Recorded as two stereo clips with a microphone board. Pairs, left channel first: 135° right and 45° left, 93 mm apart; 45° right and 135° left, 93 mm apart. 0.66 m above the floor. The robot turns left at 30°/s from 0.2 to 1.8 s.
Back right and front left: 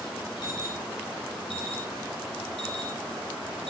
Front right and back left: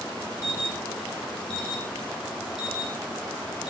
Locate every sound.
0.4 s an alarm: 100° right, 5 m; by 3.7 s 140° right, 5 m